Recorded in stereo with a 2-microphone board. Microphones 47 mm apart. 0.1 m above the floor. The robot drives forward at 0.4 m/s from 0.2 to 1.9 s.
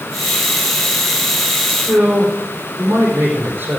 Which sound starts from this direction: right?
A man speaking, at 1.7 s.